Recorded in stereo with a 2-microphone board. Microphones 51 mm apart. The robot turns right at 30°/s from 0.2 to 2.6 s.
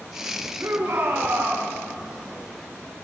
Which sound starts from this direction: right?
A shout, at 0.6 s.